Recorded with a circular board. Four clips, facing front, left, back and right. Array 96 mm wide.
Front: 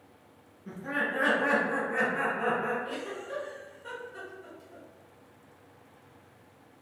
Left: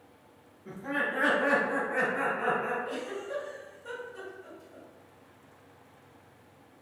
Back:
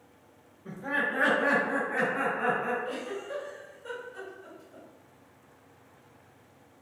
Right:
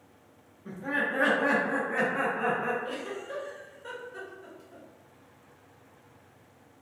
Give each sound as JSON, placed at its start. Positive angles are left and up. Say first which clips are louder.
{"t": 0.7, "sound": "laughter", "louder": "right 1 dB, back 1 dB", "azimuth_deg": -140, "distance_m": 0.9}
{"t": 2.8, "sound": "a giggle", "louder": "even, back 2 dB", "azimuth_deg": -70, "distance_m": 0.9}